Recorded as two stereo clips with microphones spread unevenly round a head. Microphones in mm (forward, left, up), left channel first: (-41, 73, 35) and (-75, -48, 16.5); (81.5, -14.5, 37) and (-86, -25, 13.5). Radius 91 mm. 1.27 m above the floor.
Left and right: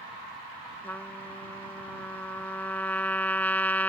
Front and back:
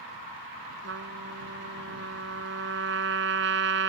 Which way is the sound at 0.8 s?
150° left.